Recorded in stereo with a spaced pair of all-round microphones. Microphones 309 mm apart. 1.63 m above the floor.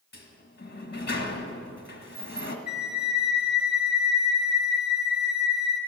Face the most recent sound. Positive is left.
turn(degrees=-5)  # may be behind; listen again after turning